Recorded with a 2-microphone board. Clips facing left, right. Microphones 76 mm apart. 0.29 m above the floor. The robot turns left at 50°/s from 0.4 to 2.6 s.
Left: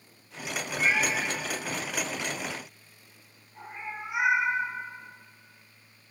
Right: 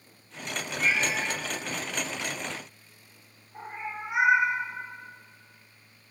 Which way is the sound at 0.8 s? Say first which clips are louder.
Left 1 dB; 45° left (ahead or behind).